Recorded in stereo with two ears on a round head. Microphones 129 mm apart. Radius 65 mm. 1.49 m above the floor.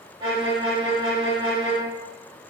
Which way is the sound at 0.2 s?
35° right (ahead or behind).